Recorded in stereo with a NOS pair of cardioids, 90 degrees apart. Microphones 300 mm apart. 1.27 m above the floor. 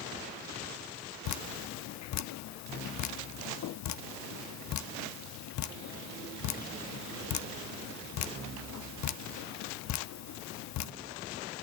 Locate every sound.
1.2 s dripping: 65° left, 0.7 m